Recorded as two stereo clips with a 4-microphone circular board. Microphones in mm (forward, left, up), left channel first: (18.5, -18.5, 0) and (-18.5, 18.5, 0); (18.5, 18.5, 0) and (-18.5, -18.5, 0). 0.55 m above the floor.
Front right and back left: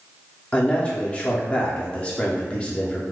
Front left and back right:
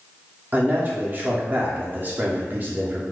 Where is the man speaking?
100° right, 0.8 m.